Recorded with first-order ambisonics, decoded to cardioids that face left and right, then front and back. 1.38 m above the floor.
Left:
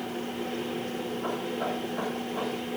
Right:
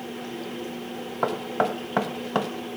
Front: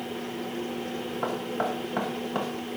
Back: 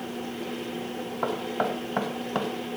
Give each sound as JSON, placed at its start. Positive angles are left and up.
{"t": 1.2, "sound": "knocking", "azimuth_deg": -100, "distance_m": 0.8}